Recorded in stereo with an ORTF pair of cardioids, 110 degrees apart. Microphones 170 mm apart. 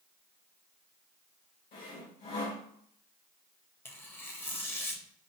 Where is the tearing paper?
10° left, 0.7 m.